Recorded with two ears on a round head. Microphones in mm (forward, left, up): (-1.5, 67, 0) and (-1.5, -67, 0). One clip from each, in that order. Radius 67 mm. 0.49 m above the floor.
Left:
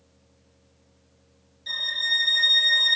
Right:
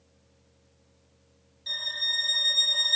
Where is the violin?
5° right (ahead or behind), 1.6 m.